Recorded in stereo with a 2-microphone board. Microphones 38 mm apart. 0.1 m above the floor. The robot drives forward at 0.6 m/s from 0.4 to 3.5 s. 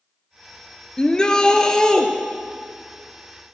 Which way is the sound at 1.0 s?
20° left (ahead or behind).